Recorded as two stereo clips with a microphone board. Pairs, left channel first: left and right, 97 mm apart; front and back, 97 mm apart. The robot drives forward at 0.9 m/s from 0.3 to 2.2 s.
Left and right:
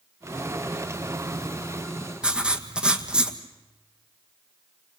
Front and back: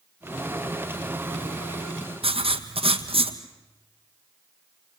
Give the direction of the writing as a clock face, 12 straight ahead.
6 o'clock.